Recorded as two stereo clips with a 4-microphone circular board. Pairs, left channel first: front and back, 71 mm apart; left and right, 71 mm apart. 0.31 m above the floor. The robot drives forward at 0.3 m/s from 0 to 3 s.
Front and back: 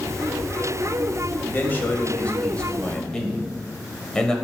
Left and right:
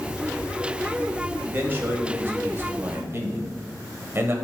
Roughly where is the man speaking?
Ahead right.